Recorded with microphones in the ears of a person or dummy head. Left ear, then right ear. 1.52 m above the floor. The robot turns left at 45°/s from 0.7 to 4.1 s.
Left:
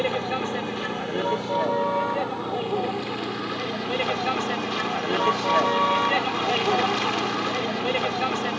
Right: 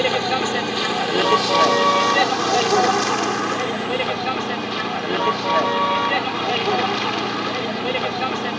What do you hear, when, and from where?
0.0 s a vehicle: 30° right; by 8.6 s 175° left